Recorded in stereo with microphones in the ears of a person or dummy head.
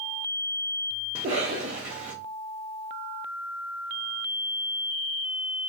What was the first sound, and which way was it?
A cough, 30° right (ahead or behind).